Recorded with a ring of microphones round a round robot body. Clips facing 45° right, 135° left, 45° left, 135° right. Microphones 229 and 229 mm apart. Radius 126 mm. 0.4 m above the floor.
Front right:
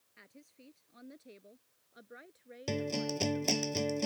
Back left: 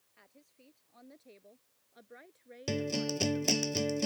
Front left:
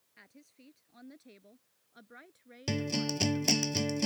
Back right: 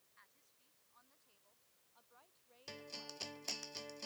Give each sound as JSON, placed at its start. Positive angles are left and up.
{"t": 0.2, "sound": "a woman speaking", "azimuth_deg": 20}
{"t": 2.7, "sound": "a guitar", "azimuth_deg": 55}